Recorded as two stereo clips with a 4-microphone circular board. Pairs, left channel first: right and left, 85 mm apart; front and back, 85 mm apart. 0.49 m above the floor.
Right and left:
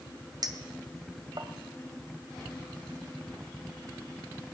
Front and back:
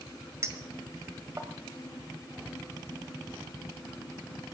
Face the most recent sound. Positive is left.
turn(degrees=125)